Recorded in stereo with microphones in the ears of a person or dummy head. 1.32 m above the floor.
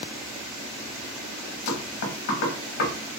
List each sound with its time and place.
1.7 s knocking: 55° left (ahead or behind), 1.1 m